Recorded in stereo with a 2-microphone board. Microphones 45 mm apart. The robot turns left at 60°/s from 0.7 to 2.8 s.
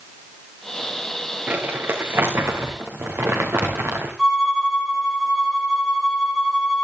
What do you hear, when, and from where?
1.5 s crumpling: 25° right, 5 m; by 4.2 s 105° right, 5 m
4.2 s a violin: 10° right (ahead or behind), 7 m